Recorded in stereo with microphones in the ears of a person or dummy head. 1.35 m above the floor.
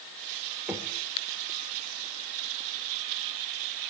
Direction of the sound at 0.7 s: 10° right (ahead or behind).